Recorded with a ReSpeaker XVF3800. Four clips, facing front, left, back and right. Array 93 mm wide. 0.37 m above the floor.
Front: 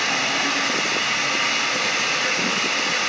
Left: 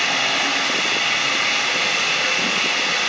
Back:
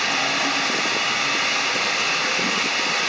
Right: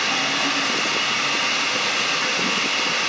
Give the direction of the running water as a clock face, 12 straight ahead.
9 o'clock.